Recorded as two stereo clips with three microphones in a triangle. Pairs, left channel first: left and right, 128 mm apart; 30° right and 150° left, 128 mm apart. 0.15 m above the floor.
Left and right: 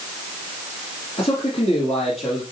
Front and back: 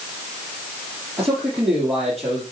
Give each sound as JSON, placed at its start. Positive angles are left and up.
{"t": 1.2, "sound": "a man speaking", "azimuth_deg": 80, "distance_m": 3.5}